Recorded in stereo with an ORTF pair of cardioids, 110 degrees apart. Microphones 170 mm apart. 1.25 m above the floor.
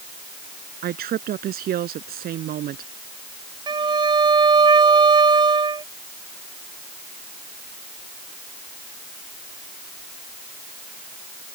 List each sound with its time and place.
0.8 s a woman speaking: 65° right
3.7 s a violin: 25° right